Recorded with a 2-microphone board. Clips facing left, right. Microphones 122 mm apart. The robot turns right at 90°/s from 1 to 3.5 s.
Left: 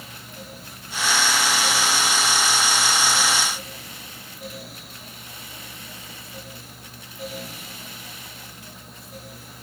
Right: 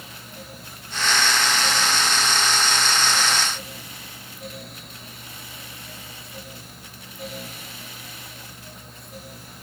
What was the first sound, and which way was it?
Only background noise.